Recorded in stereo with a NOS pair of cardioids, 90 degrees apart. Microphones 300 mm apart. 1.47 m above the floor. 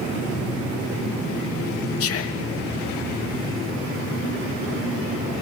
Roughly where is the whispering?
Ahead left.